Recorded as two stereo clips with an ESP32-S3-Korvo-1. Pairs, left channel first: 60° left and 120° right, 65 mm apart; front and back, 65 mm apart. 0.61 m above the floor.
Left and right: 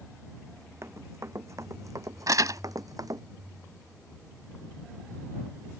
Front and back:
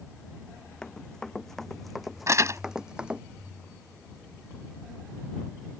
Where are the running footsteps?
75° right; by 3.2 s 105° right.